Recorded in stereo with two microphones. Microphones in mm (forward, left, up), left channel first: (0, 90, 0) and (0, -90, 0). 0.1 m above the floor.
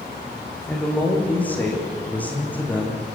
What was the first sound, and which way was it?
A man speaking, 10° left (ahead or behind).